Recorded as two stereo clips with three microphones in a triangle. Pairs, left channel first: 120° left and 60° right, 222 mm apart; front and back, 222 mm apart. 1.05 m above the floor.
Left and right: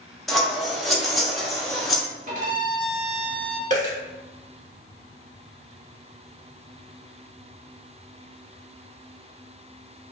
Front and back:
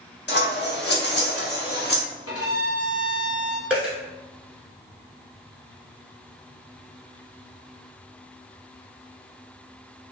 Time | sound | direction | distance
0.3 | scissors | 30° left | 0.8 m
2.3 | a violin | 5° right | 1.0 m
3.7 | a dropped coin | 95° right | 1.3 m